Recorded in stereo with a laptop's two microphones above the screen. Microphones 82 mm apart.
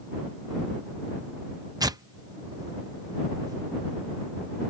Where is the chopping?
No chopping in this recording.